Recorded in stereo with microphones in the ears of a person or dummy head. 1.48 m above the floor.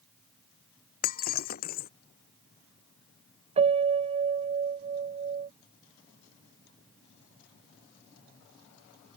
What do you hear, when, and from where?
1.0 s breaking glass: 50° left (ahead or behind)
3.6 s a piano: 30° right (ahead or behind)